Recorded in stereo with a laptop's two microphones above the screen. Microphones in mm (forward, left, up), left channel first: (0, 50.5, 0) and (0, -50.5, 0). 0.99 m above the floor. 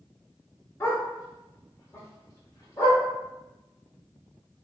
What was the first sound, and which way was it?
A dog barking, 30° left (ahead or behind).